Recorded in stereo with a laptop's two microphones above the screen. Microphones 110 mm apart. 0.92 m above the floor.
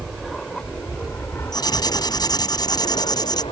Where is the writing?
40° left (ahead or behind).